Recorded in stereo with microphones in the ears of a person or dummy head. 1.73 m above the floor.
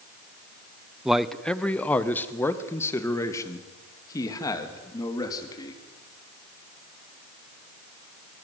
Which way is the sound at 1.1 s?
Centre (ahead or behind).